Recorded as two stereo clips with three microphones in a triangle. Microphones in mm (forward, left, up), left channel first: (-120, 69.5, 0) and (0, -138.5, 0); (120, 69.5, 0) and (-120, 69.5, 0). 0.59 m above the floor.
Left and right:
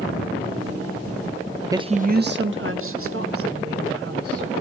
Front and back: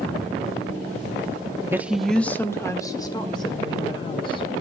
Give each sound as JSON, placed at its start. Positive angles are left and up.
{"t": 1.7, "sound": "a woman speaking", "azimuth_deg": -115, "distance_m": 0.7}